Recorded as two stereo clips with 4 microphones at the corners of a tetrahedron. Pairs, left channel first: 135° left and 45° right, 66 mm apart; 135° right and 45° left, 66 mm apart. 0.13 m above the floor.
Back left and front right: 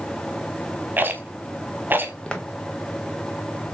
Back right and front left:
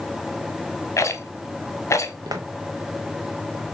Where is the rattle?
105° right, 0.7 m.